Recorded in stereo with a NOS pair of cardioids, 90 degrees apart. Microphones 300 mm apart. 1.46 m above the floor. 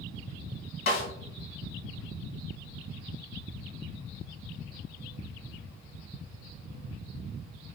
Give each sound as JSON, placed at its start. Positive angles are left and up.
{"t": 0.9, "sound": "a snare drum", "azimuth_deg": 50, "distance_m": 1.7}